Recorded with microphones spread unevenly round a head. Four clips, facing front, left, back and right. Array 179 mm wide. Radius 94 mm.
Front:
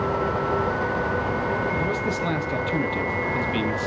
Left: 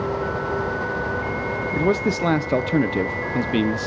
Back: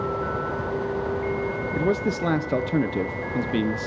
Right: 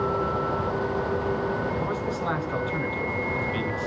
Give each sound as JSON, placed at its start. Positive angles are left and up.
{"t": 1.7, "sound": "a man speaking", "azimuth_deg": 115, "distance_m": 0.6}